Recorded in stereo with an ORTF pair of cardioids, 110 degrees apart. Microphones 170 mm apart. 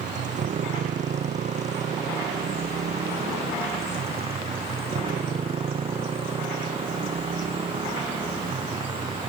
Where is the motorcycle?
50° right; by 9.3 s 30° right.